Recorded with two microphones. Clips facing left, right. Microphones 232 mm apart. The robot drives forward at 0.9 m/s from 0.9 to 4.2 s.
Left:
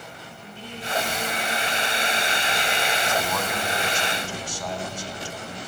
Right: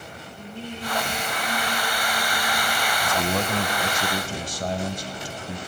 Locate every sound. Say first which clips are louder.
0.4 s singing: right 5 dB; 55° right (ahead or behind), 7 m; by 2.9 s 45° right (ahead or behind), 8 m
3.0 s a man speaking: right 2 dB; 35° right (ahead or behind), 1.8 m; by 5.6 s 40° right (ahead or behind), 1.7 m